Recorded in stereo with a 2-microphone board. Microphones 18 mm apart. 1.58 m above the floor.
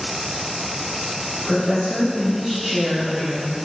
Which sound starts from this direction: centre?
A woman speaking, at 1.4 s.